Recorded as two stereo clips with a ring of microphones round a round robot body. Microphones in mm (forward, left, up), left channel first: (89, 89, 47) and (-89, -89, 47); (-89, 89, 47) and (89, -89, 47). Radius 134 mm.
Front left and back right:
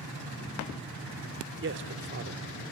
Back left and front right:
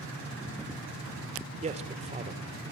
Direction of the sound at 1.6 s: 105° right.